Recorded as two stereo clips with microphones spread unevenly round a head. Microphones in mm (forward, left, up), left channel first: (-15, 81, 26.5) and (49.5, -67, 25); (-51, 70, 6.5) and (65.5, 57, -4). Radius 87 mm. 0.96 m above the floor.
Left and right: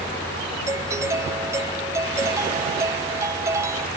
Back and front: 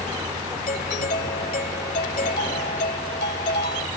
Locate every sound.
0.7 s a doorbell: 140° right